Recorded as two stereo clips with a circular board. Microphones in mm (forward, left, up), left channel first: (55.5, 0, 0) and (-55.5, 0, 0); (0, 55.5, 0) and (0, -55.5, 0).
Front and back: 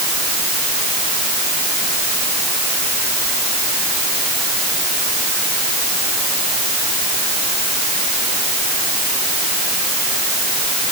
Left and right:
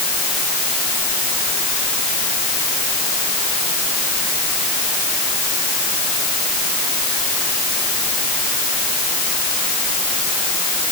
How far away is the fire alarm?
No fire alarm in this recording.